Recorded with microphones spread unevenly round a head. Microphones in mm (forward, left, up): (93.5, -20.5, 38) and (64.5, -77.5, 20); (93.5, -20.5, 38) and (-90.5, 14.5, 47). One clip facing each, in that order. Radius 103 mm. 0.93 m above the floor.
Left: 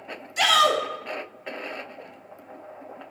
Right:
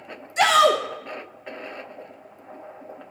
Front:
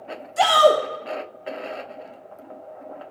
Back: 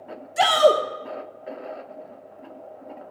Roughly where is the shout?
Behind right.